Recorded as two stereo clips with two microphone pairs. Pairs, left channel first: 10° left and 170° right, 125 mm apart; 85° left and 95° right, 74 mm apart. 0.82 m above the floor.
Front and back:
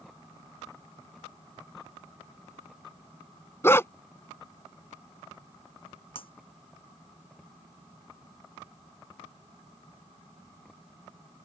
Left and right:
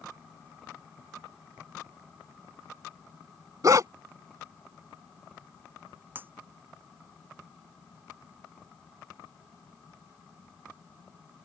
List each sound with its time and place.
3.6 s a dog barking: 55° right
6.2 s breaking glass: 30° right